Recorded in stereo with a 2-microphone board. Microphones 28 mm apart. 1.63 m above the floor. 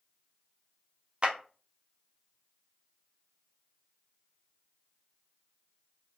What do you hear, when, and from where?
1.2 s a clap: 35° right (ahead or behind), 0.6 m